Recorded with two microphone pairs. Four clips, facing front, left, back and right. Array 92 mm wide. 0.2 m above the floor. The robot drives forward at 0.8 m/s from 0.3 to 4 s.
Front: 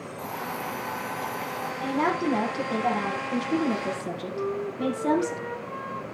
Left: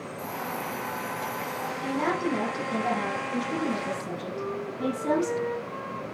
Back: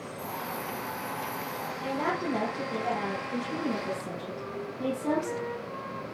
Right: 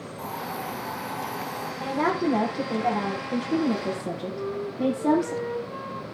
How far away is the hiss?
About 6.5 m.